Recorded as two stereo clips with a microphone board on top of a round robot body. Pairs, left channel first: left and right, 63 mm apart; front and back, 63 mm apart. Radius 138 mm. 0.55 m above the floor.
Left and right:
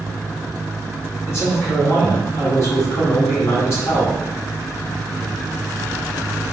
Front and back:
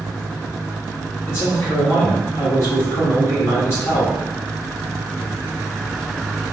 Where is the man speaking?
45° left, 1.8 m.